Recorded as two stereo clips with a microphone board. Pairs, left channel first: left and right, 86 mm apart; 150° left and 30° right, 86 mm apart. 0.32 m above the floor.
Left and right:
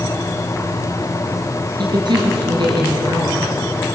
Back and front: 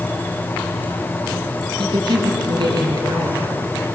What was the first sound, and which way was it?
A woman speaking, 60° right.